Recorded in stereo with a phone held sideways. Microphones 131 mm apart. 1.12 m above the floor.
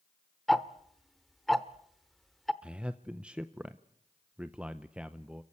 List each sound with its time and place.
0.5 s ticking: centre (ahead or behind), 0.8 m
2.6 s a man speaking: 10° right (ahead or behind), 0.6 m